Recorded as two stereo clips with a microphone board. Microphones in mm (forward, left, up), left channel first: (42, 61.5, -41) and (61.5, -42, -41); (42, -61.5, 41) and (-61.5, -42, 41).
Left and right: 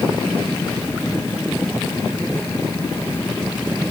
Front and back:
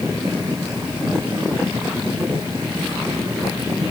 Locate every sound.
Only background noise.